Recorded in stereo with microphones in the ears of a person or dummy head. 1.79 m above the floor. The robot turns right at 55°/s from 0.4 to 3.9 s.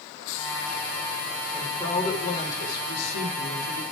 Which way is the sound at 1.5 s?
10° right.